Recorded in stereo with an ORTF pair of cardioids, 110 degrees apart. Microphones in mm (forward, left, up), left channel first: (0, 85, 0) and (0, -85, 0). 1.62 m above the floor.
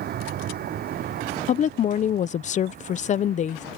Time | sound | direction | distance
0.0 | a vehicle | 65° right | ?
1.5 | a woman speaking | 45° left | ?